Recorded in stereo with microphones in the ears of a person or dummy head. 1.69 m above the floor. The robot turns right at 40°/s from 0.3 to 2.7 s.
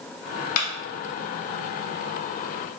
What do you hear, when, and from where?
0.6 s a clap: 50° left (ahead or behind), 1.1 m